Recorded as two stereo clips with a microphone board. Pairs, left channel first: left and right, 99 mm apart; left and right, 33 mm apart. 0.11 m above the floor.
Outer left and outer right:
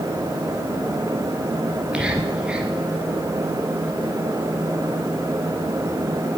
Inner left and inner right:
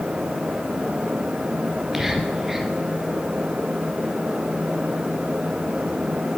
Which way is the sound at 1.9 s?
10° right (ahead or behind).